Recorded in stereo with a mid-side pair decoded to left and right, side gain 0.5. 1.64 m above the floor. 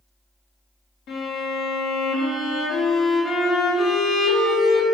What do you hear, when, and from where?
1.1 s a violin: 70° left, 3.5 m